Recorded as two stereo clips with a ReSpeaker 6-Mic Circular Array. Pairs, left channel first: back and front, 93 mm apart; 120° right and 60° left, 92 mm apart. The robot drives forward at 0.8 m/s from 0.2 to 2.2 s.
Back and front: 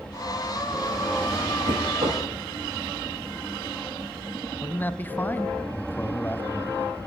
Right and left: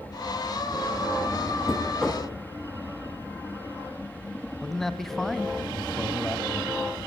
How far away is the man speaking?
About 1.7 m.